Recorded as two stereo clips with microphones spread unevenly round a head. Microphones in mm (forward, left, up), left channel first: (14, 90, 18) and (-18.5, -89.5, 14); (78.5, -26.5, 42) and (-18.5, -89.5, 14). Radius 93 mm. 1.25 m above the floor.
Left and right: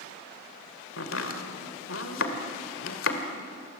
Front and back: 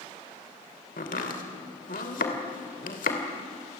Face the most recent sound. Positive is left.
turn(degrees=60)